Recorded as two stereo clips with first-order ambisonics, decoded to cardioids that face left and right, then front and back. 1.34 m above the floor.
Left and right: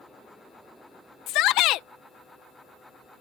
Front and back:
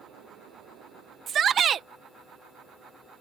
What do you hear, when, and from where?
1.3 s a shout: 125° left